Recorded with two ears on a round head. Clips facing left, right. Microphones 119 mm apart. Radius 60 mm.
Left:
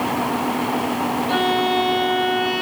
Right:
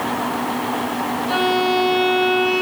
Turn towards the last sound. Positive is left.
turn(degrees=0)  # may be behind; listen again after turning